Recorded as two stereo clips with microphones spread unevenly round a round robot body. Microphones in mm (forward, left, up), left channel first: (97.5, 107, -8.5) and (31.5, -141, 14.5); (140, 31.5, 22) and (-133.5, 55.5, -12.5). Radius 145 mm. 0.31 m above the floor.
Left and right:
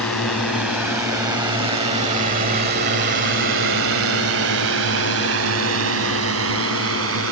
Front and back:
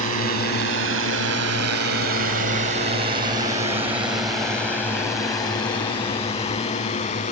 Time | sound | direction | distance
0.0 | a drone | 160° left | ?